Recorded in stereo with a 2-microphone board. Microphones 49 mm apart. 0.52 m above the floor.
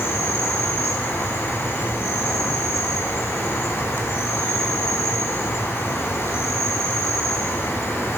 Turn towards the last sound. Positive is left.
turn(degrees=60)  # may be behind; listen again after turning